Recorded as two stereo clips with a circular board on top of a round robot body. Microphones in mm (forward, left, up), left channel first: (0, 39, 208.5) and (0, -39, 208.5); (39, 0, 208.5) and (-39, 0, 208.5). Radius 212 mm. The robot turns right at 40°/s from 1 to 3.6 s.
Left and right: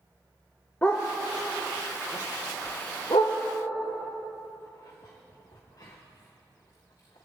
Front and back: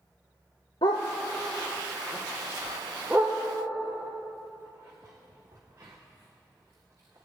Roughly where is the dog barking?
Ahead.